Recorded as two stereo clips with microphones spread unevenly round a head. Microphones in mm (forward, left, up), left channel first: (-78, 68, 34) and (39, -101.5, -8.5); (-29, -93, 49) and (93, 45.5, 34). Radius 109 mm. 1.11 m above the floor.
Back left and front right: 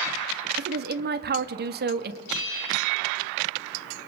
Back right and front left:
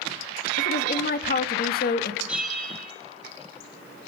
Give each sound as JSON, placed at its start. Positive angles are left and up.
{"t": 0.6, "sound": "a woman speaking", "azimuth_deg": -95, "distance_m": 2.0}
{"t": 2.3, "sound": "a bell", "azimuth_deg": 135, "distance_m": 9.5}